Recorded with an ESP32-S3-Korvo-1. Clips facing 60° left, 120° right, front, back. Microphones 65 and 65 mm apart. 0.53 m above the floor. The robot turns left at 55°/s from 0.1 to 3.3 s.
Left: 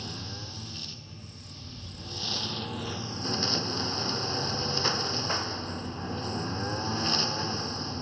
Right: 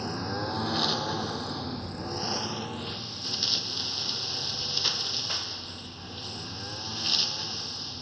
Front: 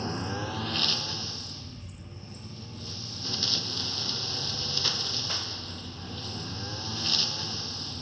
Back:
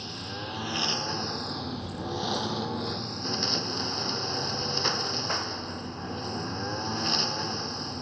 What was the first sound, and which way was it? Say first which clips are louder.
A lawn mower: right 9 dB, front 5 dB; 65° right.